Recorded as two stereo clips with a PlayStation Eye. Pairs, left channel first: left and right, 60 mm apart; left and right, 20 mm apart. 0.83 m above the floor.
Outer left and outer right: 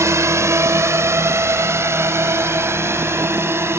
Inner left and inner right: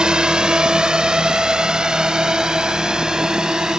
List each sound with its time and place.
0.0 s a drone: 50° right (ahead or behind); by 3.8 s 45° right (ahead or behind)